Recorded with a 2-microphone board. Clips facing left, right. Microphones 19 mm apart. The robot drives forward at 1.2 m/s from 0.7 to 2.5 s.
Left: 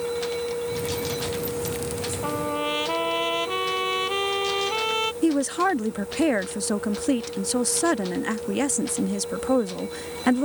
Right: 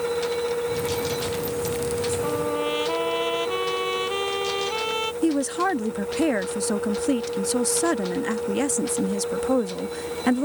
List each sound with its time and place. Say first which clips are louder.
2.2 s a trumpet: right 2 dB; 10° left (ahead or behind)
5.2 s a woman speaking: even; 5° left (ahead or behind)